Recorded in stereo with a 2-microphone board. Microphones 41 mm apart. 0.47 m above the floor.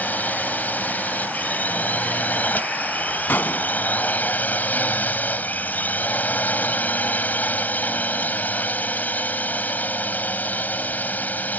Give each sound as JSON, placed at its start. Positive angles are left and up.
{"t": 0.0, "sound": "a drone", "side_deg": 45}
{"t": 3.3, "sound": "a gunshot", "side_deg": 60}